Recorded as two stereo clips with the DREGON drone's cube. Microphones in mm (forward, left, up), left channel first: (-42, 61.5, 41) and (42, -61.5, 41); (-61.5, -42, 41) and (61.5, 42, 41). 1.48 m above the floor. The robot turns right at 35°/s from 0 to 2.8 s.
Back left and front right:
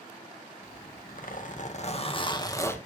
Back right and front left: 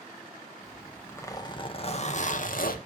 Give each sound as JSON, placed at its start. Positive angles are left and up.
{"t": 0.6, "sound": "a zipper", "azimuth_deg": 125, "distance_m": 1.9}